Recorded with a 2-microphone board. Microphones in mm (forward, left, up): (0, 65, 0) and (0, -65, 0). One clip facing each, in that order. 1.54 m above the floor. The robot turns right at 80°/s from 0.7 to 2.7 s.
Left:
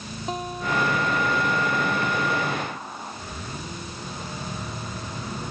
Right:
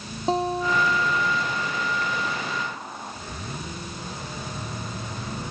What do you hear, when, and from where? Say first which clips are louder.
0.3 s a guitar: right 5 dB; 150° right; by 1.6 s 80° right